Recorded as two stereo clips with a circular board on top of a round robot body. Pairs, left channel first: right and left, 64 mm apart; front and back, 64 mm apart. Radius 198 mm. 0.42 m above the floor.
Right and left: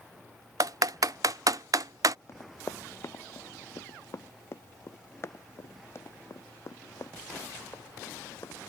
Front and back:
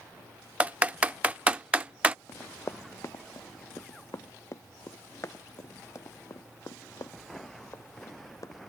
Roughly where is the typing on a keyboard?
Behind left.